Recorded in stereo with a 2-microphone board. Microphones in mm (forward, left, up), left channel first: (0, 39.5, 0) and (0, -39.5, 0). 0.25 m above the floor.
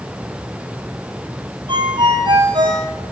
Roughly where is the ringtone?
Right.